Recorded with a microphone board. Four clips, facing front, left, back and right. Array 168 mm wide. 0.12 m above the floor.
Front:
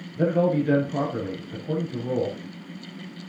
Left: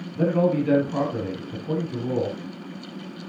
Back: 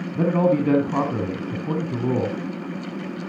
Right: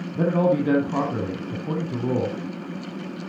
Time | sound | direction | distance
0.1 | a man speaking | 145° right | 2.5 m